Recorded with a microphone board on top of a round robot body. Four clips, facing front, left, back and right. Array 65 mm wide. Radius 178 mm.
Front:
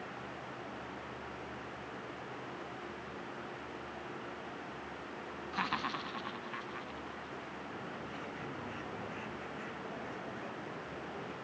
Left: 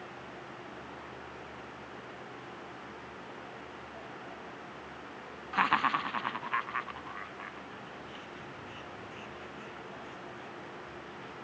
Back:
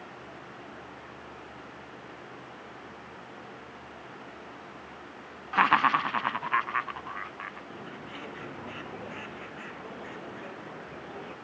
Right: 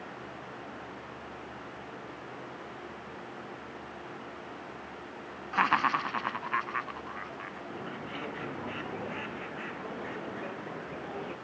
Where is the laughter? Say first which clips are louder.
Right 2 dB, back 15 dB; 170° right; by 7.6 s 175° right.